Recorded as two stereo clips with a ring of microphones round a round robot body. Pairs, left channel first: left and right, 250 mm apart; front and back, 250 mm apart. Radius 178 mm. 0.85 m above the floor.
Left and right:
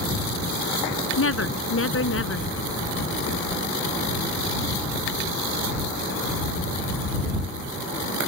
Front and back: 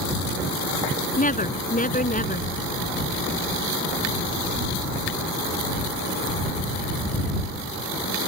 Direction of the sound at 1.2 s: 55° left.